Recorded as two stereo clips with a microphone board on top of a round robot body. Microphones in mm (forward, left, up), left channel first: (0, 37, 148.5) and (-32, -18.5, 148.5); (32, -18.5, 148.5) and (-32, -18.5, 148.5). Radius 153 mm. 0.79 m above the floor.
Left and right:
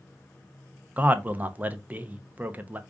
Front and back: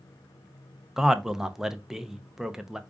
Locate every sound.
1.0 s a man speaking: 105° right, 0.7 m